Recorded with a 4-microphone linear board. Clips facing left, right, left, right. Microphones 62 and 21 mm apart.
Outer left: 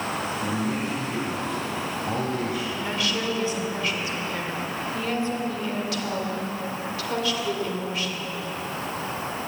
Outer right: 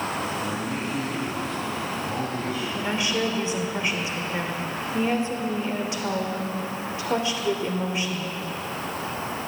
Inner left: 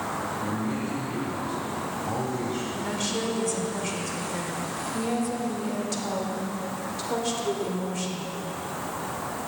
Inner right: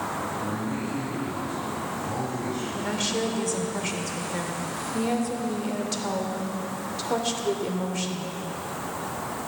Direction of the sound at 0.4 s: 60° left (ahead or behind).